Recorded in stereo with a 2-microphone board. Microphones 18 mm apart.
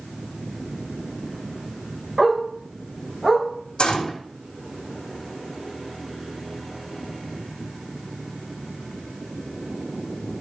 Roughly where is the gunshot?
Left.